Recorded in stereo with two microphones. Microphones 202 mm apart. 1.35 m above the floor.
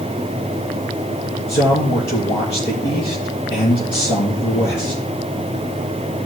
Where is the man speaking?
70° left (ahead or behind), 4 m.